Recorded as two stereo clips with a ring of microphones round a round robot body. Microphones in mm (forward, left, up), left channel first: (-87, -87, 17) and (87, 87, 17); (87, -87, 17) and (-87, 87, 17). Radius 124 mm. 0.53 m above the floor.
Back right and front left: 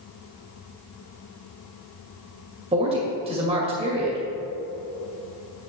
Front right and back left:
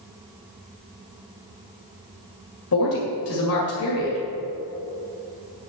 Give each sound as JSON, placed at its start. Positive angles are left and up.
{"t": 2.7, "sound": "a woman speaking", "azimuth_deg": -20, "distance_m": 2.0}